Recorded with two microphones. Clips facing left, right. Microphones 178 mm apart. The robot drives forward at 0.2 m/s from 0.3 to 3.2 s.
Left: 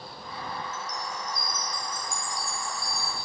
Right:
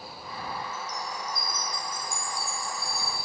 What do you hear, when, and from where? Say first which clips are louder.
0.7 s a chime: even; 65° right (ahead or behind), 3 m; by 3.2 s 55° right (ahead or behind), 3 m